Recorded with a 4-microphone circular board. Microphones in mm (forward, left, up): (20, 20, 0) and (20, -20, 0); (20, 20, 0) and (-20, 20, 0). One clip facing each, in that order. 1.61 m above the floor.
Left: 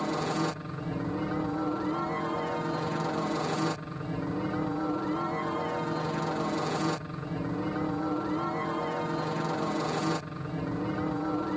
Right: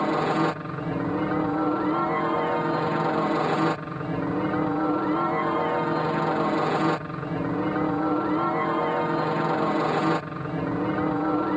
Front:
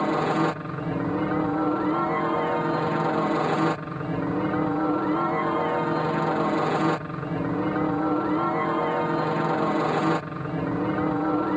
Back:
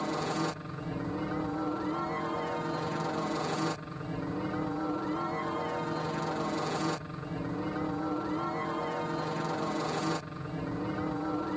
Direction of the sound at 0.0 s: 40° right.